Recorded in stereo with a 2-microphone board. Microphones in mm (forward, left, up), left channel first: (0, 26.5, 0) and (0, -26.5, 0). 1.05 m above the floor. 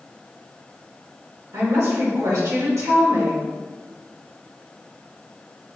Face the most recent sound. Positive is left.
turn(degrees=-65)  # may be behind; listen again after turning